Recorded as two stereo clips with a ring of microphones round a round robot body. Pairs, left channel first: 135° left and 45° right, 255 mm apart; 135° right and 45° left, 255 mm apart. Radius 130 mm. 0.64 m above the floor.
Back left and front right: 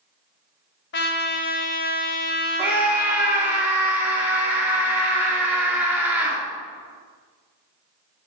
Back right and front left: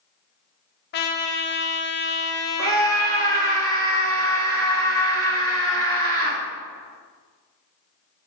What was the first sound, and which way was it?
A trumpet, straight behind.